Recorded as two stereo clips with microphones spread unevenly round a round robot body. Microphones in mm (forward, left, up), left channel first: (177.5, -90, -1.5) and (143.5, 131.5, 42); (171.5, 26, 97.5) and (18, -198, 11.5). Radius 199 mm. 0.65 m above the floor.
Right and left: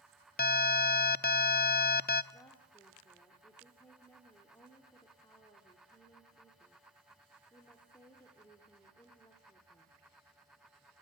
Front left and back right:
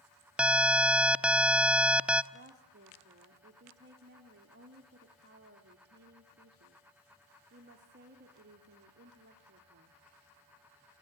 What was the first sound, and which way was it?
An alarm, 50° right.